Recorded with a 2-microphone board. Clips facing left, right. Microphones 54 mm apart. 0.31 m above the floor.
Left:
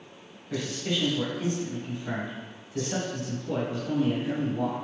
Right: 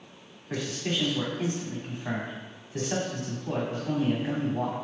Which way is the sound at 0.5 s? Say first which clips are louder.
Left 1 dB; 55° right (ahead or behind).